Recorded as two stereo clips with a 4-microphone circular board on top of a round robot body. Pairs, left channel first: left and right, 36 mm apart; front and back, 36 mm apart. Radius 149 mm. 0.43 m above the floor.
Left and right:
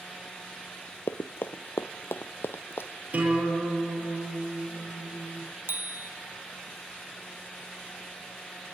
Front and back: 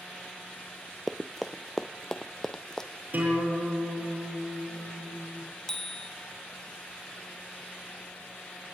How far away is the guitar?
About 9 m.